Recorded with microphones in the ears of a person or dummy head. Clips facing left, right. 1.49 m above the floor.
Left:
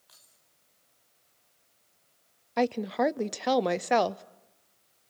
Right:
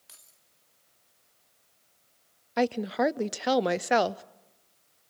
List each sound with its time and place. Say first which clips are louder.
0.1 s keys jangling: right 2 dB; 35° right (ahead or behind), 2.5 m
2.6 s a woman speaking: even; centre (ahead or behind), 0.6 m